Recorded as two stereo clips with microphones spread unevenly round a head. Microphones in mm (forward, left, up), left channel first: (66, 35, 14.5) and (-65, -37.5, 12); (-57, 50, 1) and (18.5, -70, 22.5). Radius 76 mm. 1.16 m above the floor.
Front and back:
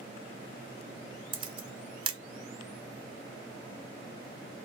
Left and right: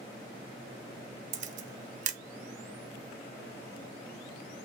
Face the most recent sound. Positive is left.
turn(degrees=-95)